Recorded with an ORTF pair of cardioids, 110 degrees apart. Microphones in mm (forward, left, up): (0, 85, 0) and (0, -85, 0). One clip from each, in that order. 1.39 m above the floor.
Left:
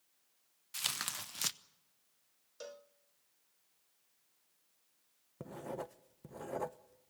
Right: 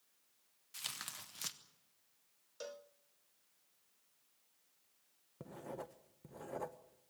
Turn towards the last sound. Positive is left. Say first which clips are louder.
# left 4 dB
turn(degrees=20)